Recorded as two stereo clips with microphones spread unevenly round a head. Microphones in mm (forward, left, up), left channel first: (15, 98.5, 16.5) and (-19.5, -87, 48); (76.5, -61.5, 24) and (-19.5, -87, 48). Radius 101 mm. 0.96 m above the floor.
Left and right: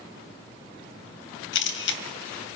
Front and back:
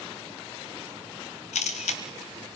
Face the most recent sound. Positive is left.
turn(degrees=45)